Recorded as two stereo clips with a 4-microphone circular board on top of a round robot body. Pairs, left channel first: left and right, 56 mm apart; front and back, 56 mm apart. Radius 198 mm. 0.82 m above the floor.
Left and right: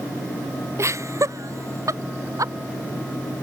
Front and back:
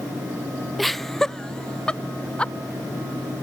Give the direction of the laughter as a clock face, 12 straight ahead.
3 o'clock.